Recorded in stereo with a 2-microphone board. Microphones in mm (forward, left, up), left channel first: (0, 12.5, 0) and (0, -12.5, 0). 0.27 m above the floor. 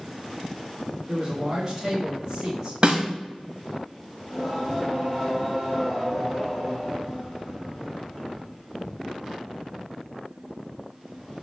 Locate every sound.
1.1 s a man speaking: 20° right (ahead or behind), 1.2 m
2.8 s a snare drum: 40° right (ahead or behind), 0.8 m
4.2 s singing: centre (ahead or behind), 1.8 m